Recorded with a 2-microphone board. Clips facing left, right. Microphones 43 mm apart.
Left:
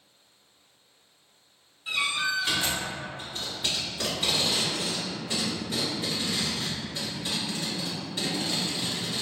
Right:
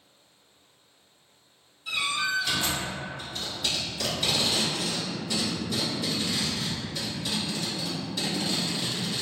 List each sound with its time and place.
1.9 s a door slam: 25° left (ahead or behind), 1.2 m
3.2 s tape being pulled: 30° left (ahead or behind), 1.6 m